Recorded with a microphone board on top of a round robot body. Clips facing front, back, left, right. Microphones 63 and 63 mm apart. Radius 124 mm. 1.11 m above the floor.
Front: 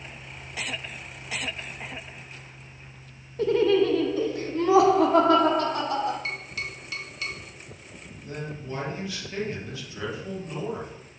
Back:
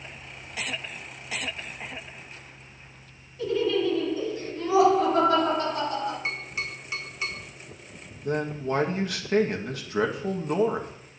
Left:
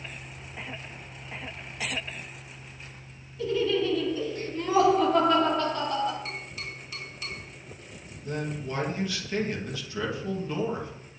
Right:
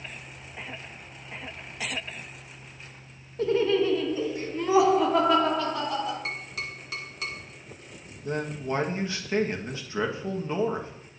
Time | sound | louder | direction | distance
3.4 | laughter | front 4 dB, right 3 dB | 45° right | 1.5 m
6.2 | tapping | back 1 dB, right 3 dB | 115° right | 2.5 m
8.2 | a man speaking | back 8 dB, right 3 dB | 150° right | 1.7 m